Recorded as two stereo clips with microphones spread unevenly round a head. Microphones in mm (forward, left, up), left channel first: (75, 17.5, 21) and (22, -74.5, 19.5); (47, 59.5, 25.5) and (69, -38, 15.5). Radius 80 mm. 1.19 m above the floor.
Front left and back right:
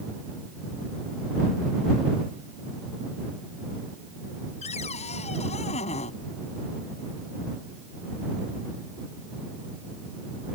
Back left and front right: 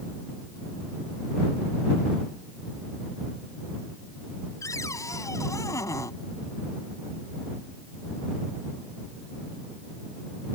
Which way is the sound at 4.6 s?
45° left.